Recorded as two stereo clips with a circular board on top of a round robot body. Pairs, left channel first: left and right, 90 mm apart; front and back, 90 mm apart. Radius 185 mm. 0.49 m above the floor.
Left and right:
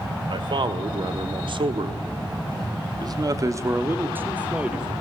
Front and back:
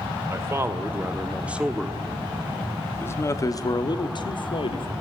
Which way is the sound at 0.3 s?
120° right.